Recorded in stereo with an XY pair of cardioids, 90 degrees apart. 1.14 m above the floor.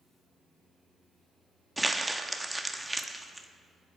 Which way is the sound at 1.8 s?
15° right.